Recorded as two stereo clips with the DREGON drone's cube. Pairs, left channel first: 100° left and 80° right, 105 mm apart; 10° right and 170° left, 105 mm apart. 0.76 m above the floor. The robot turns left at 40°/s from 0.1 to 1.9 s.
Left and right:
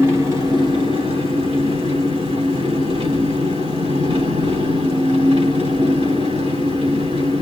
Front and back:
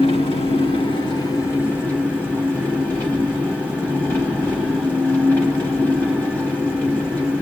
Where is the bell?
No bell in this recording.